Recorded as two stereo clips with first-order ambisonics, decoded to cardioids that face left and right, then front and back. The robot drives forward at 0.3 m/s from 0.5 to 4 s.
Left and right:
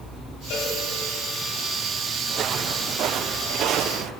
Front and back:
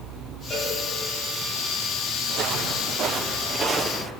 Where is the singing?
No singing in this recording.